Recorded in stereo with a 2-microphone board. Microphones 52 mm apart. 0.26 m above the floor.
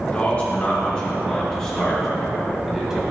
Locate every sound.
0.1 s a man speaking: 25° left (ahead or behind), 2.5 m; by 3.1 s 15° right (ahead or behind), 2 m